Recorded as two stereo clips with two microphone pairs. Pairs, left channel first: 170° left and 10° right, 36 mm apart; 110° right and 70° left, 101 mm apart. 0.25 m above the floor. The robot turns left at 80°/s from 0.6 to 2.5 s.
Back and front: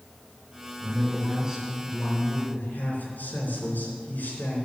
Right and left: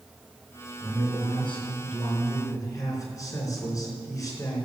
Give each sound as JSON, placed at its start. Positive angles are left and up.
{"t": 0.8, "sound": "a man speaking", "azimuth_deg": -25, "distance_m": 3.5}